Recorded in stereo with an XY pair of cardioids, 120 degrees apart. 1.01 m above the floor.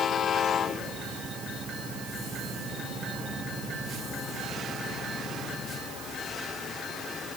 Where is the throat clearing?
No throat clearing in this recording.